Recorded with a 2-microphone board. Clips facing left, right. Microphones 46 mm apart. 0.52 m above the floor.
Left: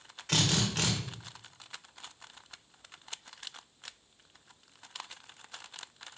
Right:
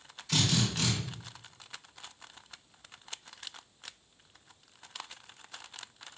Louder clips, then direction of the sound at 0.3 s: Even; 55° left (ahead or behind).